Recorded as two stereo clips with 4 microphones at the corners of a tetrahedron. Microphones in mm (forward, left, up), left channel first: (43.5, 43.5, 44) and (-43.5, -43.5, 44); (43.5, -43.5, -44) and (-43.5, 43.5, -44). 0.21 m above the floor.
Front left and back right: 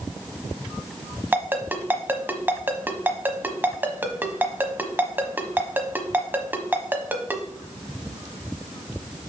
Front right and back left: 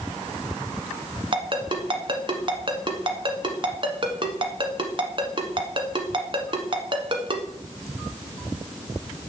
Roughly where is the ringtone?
Behind left.